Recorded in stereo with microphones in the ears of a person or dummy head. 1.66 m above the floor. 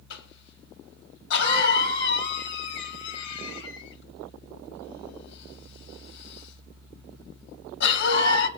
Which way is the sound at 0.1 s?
70° left (ahead or behind).